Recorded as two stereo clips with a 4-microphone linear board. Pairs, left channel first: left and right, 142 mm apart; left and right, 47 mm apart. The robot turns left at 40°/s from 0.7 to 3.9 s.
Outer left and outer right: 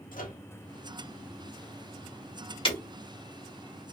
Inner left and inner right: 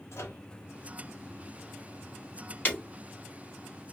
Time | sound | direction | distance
0.1 | a microwave | 75° left (ahead or behind) | 0.8 m
2.6 | breaking glass | 40° left (ahead or behind) | 1.4 m